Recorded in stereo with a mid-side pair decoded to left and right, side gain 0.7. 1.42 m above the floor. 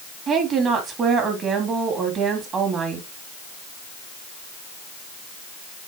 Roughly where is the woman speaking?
Ahead right.